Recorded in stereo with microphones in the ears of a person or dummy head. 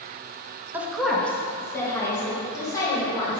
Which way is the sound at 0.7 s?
5° right (ahead or behind).